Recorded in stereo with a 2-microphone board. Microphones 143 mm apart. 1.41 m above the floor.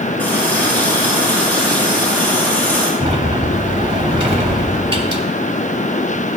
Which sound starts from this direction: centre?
A running tap, at 0.2 s.